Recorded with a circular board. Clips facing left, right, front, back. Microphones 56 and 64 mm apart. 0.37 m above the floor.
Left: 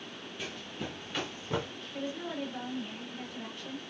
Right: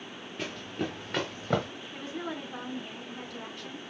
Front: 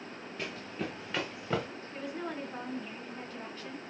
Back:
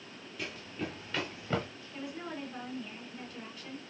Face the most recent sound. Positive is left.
turn(degrees=-55)